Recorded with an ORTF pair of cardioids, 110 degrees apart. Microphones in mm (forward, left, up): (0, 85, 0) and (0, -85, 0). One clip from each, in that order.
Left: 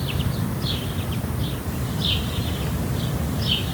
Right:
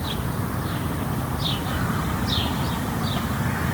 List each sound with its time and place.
Only background noise.